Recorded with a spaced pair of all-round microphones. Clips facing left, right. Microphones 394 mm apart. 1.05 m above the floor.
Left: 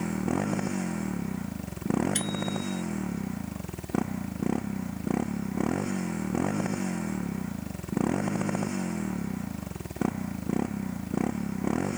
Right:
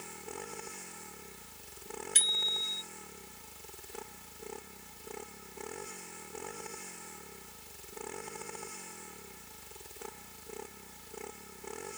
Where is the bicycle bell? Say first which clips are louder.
Left 17 dB; 15° right (ahead or behind).